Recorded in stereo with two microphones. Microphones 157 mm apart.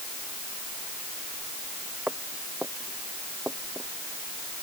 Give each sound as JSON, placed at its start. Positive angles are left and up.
{"t": 2.1, "sound": "footsteps", "side_deg": -10}